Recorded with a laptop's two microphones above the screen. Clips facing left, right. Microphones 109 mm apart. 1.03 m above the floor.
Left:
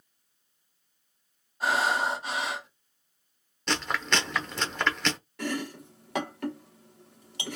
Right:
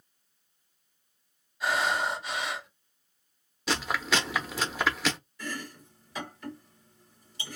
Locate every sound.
1.6 s breathing: 40° left (ahead or behind), 2.5 m
3.7 s chewing: 5° right (ahead or behind), 0.7 m
5.4 s chopping: 65° left (ahead or behind), 0.9 m